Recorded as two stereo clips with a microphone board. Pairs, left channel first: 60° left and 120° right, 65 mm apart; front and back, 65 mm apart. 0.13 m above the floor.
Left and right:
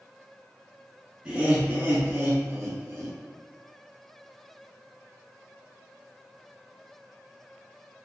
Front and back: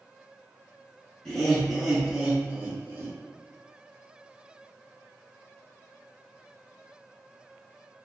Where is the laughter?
70° right, 1.4 m; by 3.1 s 135° right, 1.8 m.